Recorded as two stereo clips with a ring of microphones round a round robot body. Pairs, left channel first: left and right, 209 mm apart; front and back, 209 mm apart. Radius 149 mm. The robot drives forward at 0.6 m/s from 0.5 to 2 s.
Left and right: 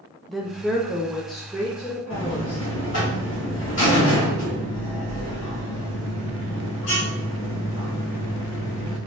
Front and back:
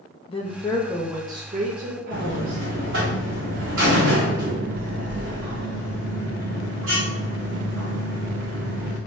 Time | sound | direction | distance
0.3 | a woman speaking | straight ahead | 0.7 m
2.1 | a buzzer | 140° left | 1.7 m